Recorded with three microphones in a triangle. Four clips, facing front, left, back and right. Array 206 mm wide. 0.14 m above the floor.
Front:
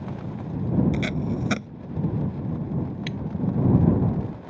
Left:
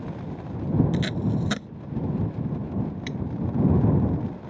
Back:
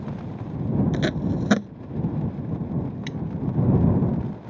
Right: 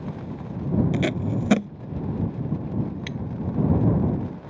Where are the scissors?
30° right.